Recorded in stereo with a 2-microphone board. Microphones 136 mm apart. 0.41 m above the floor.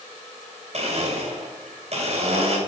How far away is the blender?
About 2 m.